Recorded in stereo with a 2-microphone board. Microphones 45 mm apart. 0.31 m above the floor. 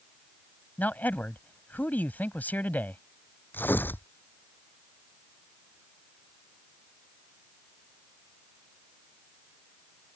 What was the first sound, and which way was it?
A man speaking, 40° left (ahead or behind).